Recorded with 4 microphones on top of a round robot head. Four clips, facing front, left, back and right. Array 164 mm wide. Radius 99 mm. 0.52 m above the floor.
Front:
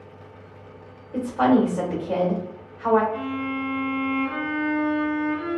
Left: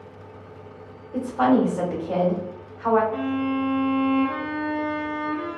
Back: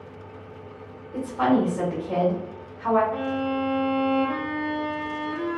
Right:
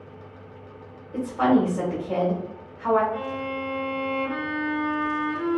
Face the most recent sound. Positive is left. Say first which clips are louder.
# left 5 dB, back 2 dB
turn(degrees=140)